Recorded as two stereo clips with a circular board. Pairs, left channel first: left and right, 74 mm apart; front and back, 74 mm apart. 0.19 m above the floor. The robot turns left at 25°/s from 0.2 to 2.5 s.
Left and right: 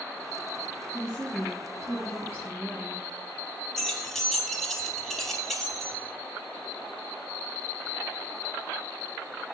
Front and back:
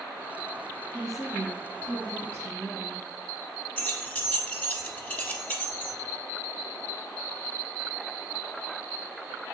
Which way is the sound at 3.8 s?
10° left.